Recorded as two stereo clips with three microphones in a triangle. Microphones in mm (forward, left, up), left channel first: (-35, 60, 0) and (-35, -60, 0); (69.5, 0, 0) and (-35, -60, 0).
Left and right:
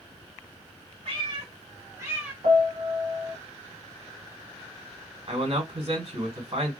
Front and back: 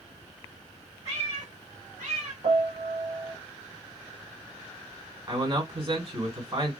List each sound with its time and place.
1.1 s a cat meowing: 130° right, 1.3 m; by 2.3 s 170° right, 1.3 m
2.4 s a piano: 115° right, 1.0 m
5.3 s a man speaking: 115° right, 1.8 m